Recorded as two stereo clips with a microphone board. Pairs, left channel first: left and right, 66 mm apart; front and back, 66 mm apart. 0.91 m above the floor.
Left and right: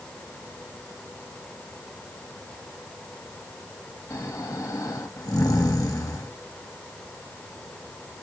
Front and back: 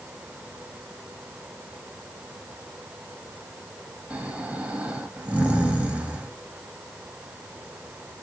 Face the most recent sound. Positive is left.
turn(degrees=115)